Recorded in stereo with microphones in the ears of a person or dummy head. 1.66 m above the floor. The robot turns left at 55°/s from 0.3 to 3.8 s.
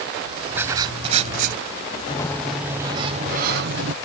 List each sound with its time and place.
0.6 s writing: 10° right; by 1.6 s 70° right
2.1 s a sliding door: 25° left; by 4.0 s 70° right